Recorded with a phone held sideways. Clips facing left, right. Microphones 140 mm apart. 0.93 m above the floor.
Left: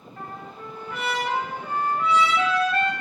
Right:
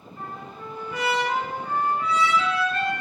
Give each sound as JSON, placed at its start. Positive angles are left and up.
{"t": 0.2, "sound": "a trumpet", "side_deg": 70, "distance_m": 2.5}